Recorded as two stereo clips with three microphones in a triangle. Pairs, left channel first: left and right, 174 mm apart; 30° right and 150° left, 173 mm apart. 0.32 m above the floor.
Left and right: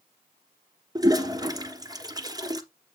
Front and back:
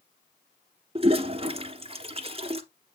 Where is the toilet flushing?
155° right, 1.3 m.